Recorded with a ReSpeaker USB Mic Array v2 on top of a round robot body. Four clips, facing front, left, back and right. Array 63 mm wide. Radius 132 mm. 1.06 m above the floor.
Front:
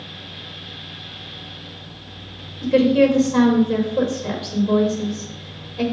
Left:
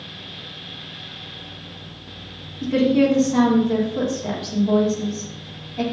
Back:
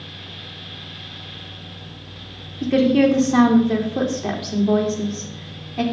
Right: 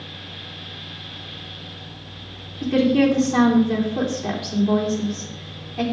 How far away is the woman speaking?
About 3 m.